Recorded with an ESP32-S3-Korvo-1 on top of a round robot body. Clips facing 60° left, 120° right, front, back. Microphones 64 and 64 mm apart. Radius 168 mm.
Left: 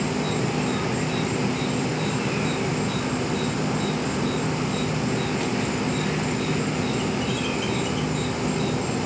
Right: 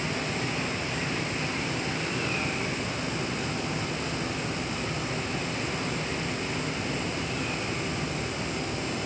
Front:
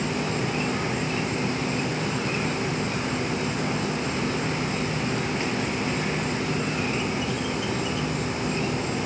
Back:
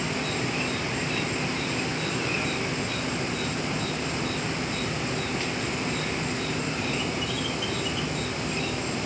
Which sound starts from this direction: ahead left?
An insect, at 0.0 s.